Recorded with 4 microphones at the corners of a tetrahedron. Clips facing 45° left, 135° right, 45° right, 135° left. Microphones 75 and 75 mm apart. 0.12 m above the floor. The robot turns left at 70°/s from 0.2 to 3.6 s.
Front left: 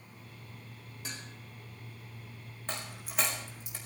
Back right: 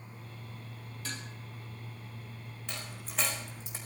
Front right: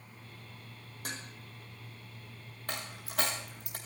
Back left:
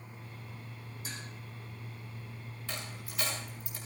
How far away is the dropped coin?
About 4 m.